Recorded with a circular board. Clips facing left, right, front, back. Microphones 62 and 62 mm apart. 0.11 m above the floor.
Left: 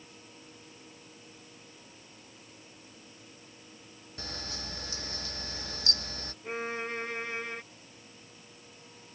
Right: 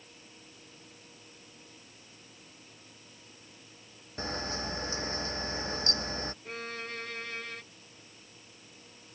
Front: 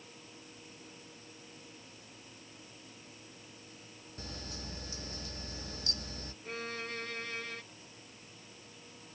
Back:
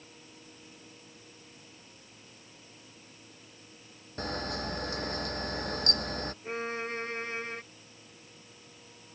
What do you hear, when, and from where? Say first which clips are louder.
4.2 s a camera shutter: right 7 dB, back 12 dB; 150° right
6.4 s a violin: left 5 dB, back 3 dB; 145° left